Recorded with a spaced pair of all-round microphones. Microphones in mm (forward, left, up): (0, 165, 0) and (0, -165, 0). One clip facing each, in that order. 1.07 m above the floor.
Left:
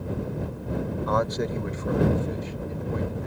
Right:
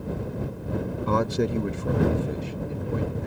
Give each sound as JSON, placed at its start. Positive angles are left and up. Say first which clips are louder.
{"t": 1.1, "sound": "a man speaking", "louder": "right 4 dB", "side_deg": -35}